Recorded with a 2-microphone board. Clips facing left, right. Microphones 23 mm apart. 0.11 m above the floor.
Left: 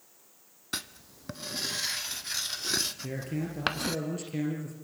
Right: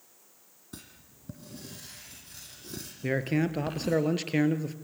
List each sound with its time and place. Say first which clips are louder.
0.7 s writing: left 12 dB; 75° left (ahead or behind), 0.7 m
3.0 s a man speaking: right 7 dB; 50° right (ahead or behind), 1.9 m